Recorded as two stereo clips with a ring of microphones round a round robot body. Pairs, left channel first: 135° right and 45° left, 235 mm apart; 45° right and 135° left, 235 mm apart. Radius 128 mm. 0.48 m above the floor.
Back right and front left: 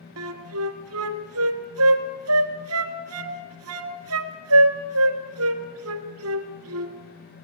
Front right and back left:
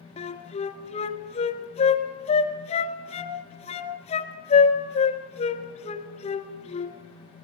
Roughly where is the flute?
Ahead.